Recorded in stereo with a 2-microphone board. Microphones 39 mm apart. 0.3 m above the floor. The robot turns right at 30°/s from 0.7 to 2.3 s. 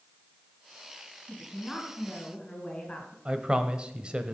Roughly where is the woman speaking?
Ahead.